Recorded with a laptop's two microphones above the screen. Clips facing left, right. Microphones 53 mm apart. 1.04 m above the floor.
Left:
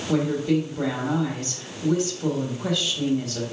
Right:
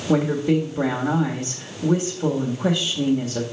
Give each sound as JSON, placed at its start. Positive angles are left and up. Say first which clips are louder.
{"t": 0.1, "sound": "a woman speaking", "louder": "right 3 dB", "side_deg": -30, "distance_m": 1.5}